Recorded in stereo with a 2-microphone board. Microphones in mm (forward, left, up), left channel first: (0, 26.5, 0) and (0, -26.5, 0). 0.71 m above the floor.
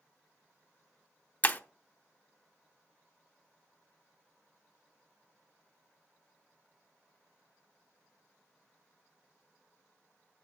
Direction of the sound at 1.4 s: 30° left (ahead or behind).